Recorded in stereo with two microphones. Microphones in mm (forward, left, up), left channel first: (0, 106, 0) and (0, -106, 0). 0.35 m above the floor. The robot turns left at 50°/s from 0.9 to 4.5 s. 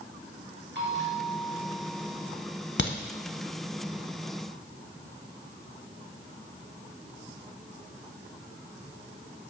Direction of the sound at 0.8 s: 65° right.